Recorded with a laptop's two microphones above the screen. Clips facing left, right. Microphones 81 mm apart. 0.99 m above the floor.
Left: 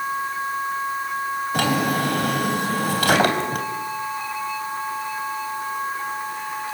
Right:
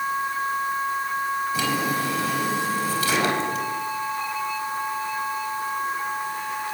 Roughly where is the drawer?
Left.